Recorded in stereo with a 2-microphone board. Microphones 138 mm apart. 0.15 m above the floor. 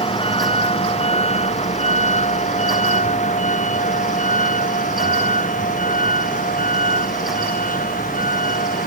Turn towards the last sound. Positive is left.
turn(degrees=85)